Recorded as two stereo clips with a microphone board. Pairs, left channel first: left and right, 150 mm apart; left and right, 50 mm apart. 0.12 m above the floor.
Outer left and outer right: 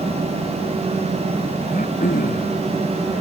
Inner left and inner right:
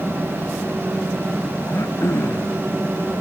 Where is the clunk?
No clunk in this recording.